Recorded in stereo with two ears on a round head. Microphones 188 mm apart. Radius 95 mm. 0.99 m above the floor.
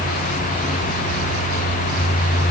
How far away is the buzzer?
I don't hear a buzzer.